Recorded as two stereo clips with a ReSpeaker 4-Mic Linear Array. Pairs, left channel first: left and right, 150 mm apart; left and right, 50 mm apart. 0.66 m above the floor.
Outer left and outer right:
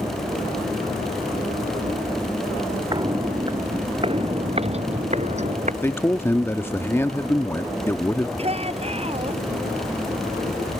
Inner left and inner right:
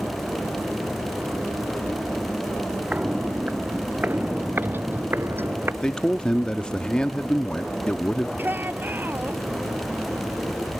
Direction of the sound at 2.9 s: 30° right (ahead or behind).